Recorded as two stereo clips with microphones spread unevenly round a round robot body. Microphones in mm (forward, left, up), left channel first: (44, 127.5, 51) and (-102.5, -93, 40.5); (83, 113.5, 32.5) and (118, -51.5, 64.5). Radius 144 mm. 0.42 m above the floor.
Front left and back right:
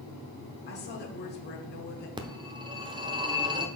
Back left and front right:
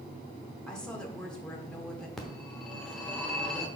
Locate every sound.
0.7 s a woman speaking: 35° left, 1.4 m
2.2 s a phone ringing: 175° left, 0.9 m